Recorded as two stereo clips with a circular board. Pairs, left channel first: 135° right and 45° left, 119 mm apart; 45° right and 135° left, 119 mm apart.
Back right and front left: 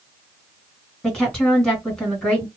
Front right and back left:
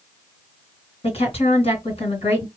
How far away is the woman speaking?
About 2.5 m.